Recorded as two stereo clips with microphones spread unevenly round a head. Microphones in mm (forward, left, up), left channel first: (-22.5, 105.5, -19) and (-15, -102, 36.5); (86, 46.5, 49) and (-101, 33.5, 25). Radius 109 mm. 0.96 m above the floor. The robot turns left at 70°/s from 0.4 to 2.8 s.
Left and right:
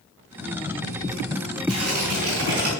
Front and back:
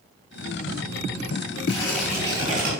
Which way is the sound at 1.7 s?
60° right.